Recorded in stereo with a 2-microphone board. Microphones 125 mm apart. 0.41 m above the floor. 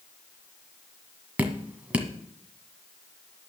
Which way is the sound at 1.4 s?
10° right (ahead or behind).